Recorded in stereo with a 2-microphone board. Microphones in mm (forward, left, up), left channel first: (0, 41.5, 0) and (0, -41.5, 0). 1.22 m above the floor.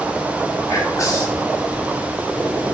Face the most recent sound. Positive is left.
turn(degrees=40)  # may be behind; listen again after turning